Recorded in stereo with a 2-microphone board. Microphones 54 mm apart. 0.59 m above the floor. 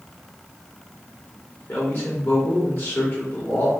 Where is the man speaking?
40° left (ahead or behind), 1.5 m.